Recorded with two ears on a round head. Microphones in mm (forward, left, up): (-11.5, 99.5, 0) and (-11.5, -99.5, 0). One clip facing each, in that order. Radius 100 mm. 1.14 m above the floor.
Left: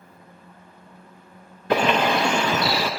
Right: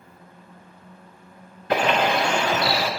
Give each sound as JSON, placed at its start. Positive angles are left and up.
{"t": 1.7, "sound": "a bird", "side_deg": 75, "distance_m": 0.6}